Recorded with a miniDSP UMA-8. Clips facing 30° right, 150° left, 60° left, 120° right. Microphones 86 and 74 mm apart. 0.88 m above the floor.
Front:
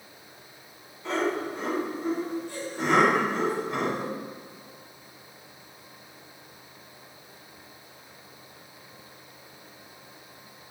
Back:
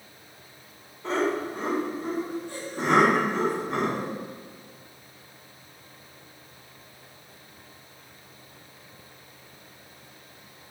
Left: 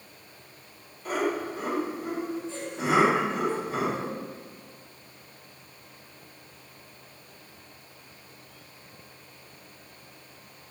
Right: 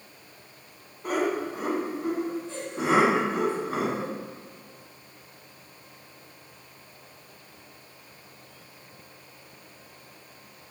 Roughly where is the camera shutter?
I don't hear a camera shutter.